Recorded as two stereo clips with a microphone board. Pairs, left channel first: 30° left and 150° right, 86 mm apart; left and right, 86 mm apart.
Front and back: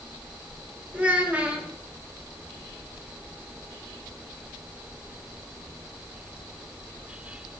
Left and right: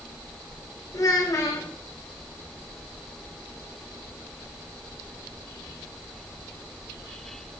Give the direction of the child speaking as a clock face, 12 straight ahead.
7 o'clock.